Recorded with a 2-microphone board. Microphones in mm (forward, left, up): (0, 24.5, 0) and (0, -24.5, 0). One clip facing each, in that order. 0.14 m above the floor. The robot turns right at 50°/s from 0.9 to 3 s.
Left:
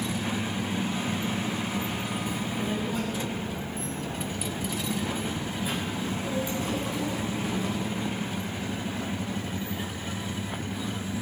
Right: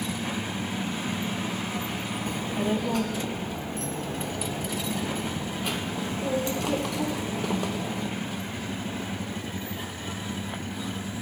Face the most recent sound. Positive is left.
turn(degrees=-85)